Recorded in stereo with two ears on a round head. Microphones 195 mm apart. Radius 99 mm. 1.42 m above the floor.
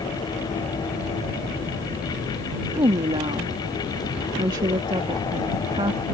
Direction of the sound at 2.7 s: 25° right (ahead or behind).